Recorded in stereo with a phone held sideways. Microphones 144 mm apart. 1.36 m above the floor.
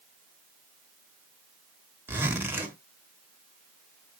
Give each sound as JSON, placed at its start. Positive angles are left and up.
{"t": 2.1, "sound": "a zipper", "side_deg": -15, "distance_m": 1.4}